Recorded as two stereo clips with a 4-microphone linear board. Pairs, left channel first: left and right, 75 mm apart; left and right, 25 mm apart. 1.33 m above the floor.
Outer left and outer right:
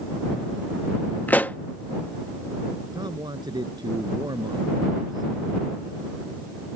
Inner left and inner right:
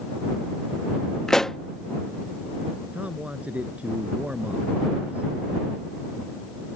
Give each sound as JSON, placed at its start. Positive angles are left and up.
{"t": 1.3, "sound": "a pop", "side_deg": 25}
{"t": 2.9, "sound": "a man speaking", "side_deg": -70}